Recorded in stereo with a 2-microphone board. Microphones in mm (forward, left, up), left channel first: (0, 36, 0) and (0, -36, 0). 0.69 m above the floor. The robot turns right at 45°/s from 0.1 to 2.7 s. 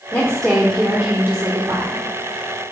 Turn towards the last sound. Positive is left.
turn(degrees=-85)